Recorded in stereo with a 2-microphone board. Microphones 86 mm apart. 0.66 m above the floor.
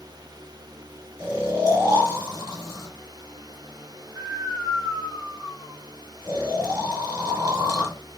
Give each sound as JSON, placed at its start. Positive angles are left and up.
{"t": 1.2, "sound": "snoring", "side_deg": -40, "distance_m": 2.0}